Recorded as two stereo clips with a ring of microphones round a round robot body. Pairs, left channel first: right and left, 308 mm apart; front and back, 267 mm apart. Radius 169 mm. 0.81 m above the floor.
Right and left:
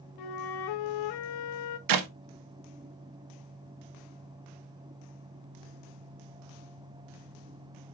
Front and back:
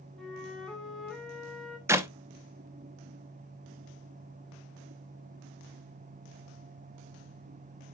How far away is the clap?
About 1.1 m.